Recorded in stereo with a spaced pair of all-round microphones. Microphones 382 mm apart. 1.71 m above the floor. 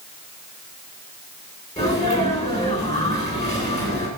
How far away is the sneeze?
About 8.5 m.